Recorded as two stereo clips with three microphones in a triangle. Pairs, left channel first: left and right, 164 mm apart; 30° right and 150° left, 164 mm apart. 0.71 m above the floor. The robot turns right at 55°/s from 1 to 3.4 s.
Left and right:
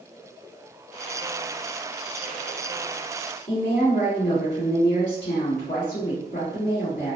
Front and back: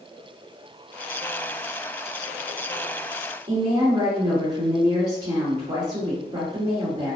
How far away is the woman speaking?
About 1.8 m.